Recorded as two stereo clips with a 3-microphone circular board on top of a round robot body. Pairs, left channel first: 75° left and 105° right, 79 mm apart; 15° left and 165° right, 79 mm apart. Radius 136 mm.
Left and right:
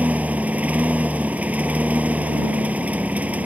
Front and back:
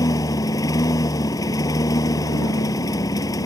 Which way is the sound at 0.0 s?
35° right.